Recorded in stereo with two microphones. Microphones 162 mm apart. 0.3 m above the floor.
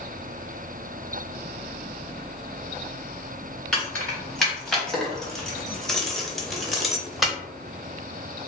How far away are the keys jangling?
About 1.5 m.